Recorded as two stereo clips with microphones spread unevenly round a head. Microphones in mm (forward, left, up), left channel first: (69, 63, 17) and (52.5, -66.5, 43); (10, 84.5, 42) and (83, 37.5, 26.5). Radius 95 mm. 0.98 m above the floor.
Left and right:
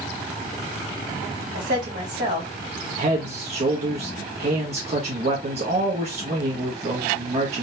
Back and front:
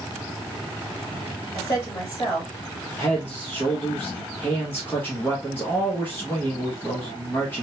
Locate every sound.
1.5 s a woman speaking: 140° right, 2.5 m
3.0 s a man speaking: 140° right, 1.0 m